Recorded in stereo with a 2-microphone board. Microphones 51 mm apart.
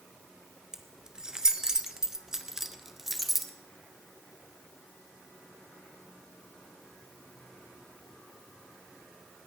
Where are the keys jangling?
15° right (ahead or behind), 1.3 m; by 3.5 s centre (ahead or behind), 1.4 m.